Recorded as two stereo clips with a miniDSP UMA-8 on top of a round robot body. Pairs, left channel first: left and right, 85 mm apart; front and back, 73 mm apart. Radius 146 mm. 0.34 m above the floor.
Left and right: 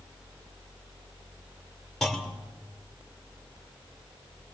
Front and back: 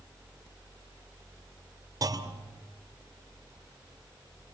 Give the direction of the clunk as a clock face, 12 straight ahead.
6 o'clock.